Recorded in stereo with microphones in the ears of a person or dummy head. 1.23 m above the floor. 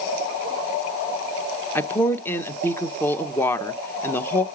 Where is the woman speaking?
15° left (ahead or behind), 0.8 m.